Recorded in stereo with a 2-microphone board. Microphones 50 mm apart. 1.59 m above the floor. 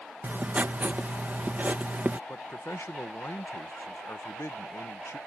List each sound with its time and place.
0.2 s writing: 35° right (ahead or behind)
2.3 s a man speaking: 65° left (ahead or behind)